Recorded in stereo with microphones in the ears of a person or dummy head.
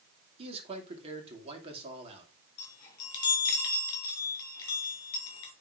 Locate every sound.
0.4 s a man speaking: 30° right (ahead or behind), 2.5 m
2.6 s a chime: 25° left (ahead or behind), 3.5 m